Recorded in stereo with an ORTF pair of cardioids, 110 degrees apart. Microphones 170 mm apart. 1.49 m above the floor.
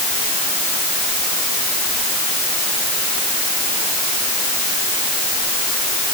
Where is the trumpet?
No trumpet in this recording.